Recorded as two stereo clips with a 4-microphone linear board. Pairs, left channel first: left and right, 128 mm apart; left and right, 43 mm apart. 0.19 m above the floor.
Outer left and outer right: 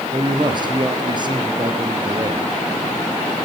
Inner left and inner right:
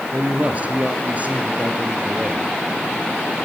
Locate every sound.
0.1 s a man speaking: 35° right (ahead or behind), 3.5 m